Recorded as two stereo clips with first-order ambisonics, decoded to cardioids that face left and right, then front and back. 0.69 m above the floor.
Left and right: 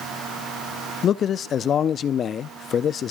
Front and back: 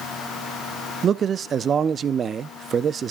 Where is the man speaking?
130° left, 0.5 m.